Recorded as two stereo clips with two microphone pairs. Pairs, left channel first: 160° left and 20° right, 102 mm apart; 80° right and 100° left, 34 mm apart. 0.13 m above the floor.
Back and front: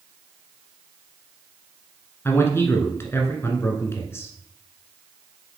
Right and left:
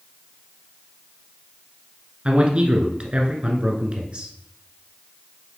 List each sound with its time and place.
2.2 s a man speaking: 125° left, 1.2 m